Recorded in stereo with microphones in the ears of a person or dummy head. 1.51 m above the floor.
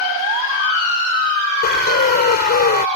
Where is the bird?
50° left (ahead or behind).